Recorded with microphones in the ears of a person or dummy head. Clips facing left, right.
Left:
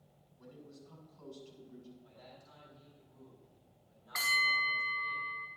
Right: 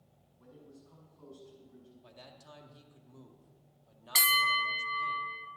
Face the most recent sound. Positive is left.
turn(degrees=-40)  # may be behind; listen again after turning